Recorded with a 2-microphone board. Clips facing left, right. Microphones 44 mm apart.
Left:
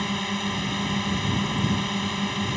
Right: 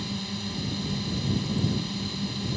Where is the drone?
50° left (ahead or behind).